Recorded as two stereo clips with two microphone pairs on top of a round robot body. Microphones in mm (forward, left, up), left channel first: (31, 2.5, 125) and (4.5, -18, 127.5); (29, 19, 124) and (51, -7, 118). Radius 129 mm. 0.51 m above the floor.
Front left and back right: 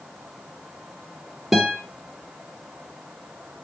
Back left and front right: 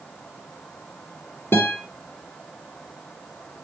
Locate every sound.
1.5 s a guitar: 135° left, 3.5 m